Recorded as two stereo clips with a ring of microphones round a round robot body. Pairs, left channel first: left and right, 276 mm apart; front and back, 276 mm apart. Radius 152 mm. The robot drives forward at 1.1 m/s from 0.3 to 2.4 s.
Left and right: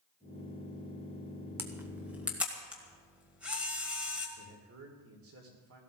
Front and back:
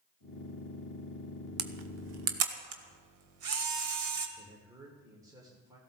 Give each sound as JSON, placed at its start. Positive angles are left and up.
{"t": 1.6, "sound": "a camera shutter", "azimuth_deg": -170, "distance_m": 0.9}
{"t": 4.4, "sound": "a man speaking", "azimuth_deg": -105, "distance_m": 2.0}